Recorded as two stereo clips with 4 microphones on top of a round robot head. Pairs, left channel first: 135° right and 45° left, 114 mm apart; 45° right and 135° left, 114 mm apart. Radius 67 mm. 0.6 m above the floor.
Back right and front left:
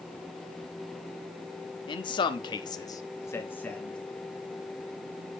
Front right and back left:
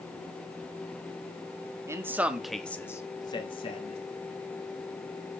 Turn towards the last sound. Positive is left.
turn(degrees=-55)